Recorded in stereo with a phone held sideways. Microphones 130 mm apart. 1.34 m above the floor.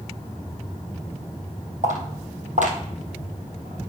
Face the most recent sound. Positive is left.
turn(degrees=-60)  # may be behind; listen again after turning